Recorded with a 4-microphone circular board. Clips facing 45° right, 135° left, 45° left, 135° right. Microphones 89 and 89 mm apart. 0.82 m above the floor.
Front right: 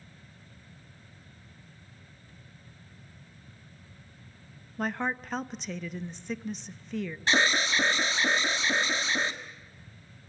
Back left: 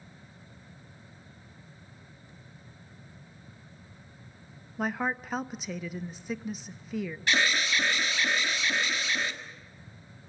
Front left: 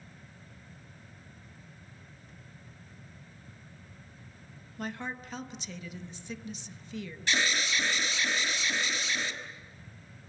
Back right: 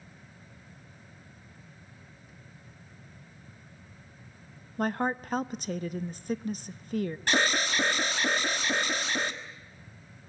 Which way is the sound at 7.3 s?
100° right.